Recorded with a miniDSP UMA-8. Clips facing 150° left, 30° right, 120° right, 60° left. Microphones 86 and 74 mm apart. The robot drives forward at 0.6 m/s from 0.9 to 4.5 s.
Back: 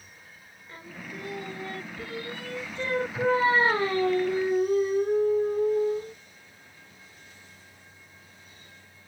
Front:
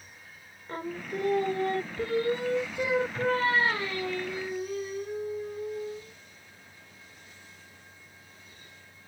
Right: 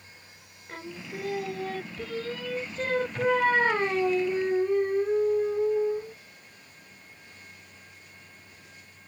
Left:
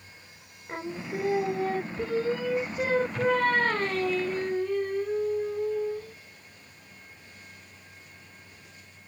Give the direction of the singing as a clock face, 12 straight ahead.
12 o'clock.